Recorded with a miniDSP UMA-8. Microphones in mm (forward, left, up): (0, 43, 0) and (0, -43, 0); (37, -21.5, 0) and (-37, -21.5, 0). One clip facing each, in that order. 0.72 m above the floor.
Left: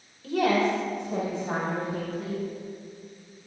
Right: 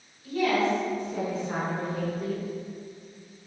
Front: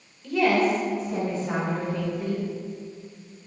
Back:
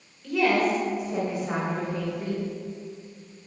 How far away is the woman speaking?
About 3 m.